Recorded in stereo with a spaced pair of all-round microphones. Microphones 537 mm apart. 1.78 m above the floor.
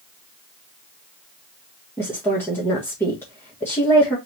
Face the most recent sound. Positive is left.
turn(degrees=5)  # may be behind; listen again after turning